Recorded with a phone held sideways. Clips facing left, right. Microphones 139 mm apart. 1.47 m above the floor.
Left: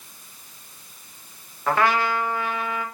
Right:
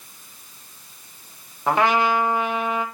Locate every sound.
1.7 s a trumpet: 20° right (ahead or behind), 1.4 m